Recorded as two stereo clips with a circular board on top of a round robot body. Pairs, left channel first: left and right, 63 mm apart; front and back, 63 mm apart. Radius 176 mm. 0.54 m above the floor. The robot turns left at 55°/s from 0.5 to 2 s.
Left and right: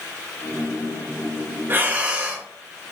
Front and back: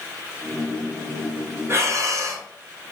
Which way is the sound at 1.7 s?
140° right.